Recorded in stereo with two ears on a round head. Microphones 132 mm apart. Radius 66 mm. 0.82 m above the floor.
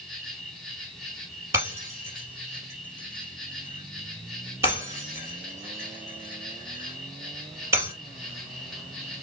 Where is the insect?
Centre (ahead or behind), 2 m.